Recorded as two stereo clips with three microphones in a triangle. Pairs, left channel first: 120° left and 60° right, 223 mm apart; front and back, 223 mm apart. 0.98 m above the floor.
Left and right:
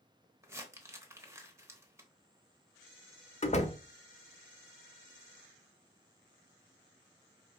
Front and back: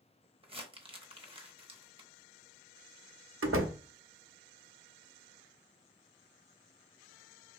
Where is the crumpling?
130° right, 0.9 m.